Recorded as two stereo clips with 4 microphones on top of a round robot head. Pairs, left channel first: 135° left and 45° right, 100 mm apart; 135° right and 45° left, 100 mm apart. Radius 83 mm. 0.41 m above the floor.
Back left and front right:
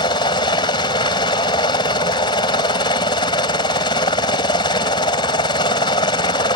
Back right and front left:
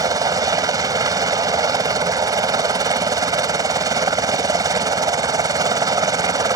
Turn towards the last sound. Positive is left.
turn(degrees=95)